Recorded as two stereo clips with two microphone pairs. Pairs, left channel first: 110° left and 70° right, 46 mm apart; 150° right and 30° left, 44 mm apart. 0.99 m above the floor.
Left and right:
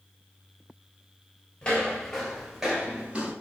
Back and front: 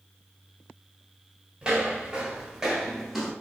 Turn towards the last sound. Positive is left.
turn(degrees=-55)